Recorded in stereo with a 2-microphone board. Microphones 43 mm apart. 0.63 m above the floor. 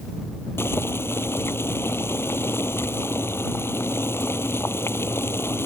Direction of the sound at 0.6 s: 85° left.